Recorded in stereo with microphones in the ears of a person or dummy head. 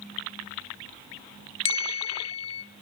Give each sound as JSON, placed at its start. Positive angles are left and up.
{"t": 1.6, "sound": "a bell", "side_deg": 30, "distance_m": 1.0}